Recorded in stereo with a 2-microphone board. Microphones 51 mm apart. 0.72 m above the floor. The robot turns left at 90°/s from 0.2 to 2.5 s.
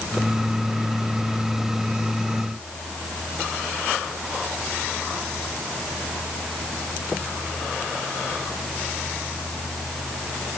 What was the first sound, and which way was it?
Only background noise.